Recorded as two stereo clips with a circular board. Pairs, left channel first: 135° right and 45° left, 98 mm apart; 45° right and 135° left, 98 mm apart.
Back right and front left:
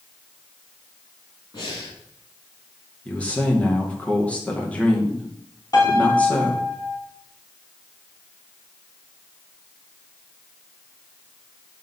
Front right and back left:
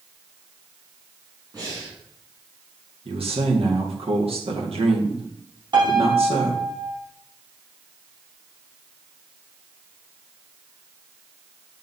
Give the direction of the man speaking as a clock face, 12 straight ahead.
7 o'clock.